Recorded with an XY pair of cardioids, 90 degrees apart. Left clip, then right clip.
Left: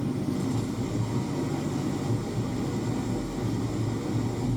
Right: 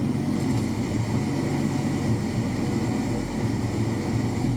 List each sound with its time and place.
0.0 s an engine running: 65° right, 3.5 m